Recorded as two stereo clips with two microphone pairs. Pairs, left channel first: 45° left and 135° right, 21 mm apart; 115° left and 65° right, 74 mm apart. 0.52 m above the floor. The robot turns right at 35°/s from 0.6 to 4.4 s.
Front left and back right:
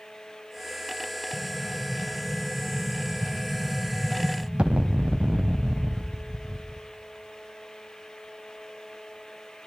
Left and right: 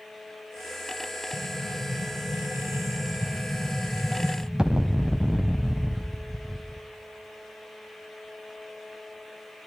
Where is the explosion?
110° left, 0.8 m; by 6.9 s 145° right, 0.8 m.